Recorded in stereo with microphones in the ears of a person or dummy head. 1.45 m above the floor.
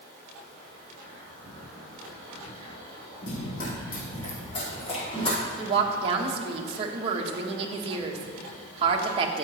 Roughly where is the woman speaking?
Right.